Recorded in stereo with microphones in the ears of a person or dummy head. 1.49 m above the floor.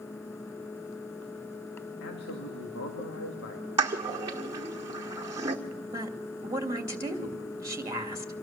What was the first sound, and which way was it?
A man speaking, 70° left (ahead or behind).